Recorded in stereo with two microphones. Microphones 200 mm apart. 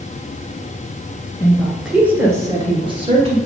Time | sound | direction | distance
1.4 | a woman speaking | 10° left (ahead or behind) | 1.4 m